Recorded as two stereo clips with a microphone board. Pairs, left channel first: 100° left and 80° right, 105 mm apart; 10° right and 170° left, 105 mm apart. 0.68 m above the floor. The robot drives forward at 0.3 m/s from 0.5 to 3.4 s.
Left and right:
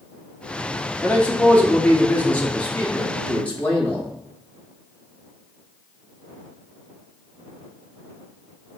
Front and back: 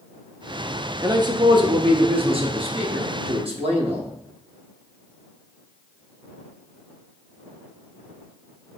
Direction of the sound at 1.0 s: 170° left.